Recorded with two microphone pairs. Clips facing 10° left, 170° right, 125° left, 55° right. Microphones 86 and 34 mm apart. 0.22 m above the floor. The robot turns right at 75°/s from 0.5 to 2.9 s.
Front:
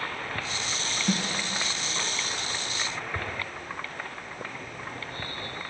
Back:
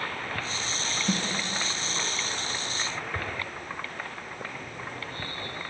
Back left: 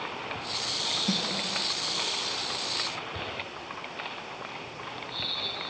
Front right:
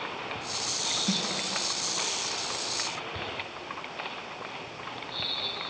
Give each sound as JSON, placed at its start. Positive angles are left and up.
{"t": 1.1, "sound": "a snare drum", "azimuth_deg": 0, "distance_m": 1.3}